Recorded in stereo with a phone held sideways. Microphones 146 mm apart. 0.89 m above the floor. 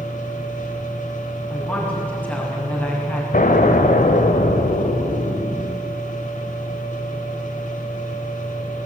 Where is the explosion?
70° left (ahead or behind), 1.8 m.